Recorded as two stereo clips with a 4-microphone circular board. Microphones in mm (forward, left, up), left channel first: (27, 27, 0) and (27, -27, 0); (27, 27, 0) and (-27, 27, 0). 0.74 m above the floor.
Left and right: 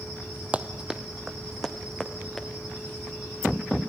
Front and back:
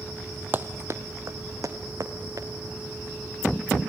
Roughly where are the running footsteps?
Behind right.